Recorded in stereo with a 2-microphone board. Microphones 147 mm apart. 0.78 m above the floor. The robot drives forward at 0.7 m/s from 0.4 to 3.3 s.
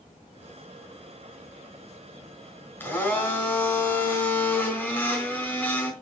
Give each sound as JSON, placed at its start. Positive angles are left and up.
{"t": 2.8, "sound": "a blender", "side_deg": 10, "distance_m": 3.0}